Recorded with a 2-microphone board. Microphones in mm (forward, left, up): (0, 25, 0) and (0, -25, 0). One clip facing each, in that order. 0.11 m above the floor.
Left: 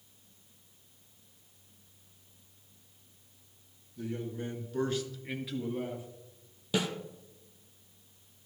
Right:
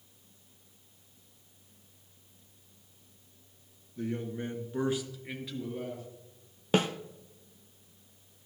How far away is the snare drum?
About 1.0 m.